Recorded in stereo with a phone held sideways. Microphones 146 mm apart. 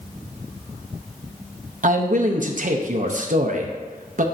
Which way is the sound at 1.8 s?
60° right (ahead or behind).